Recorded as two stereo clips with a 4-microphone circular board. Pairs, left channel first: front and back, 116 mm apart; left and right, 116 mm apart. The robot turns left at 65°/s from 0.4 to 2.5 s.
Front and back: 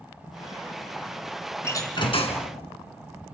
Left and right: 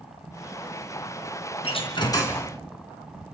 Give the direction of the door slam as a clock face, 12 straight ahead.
10 o'clock.